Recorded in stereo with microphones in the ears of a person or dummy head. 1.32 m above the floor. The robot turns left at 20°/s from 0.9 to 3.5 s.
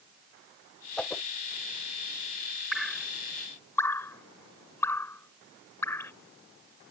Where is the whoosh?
10° left (ahead or behind); by 1.2 s 15° left (ahead or behind).